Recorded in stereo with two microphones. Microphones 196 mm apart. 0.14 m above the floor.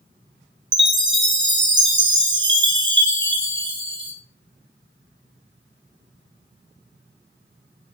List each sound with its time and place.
0.7 s a chime: 70° right (ahead or behind), 1.7 m